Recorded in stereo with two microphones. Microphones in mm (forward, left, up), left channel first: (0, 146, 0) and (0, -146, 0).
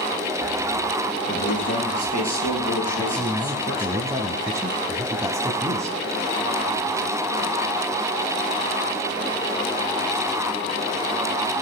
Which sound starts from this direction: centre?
A man speaking, at 3.0 s.